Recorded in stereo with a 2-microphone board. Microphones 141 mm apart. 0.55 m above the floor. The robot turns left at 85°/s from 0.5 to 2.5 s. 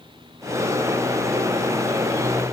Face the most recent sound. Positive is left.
No sound to turn to.